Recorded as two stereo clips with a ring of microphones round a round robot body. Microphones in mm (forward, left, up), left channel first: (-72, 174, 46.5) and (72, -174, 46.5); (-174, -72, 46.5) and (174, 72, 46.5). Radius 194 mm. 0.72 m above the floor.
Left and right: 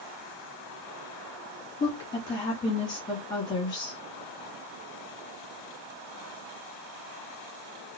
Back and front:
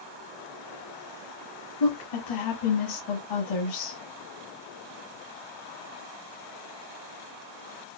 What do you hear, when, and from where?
1.8 s a woman speaking: 165° right, 1.6 m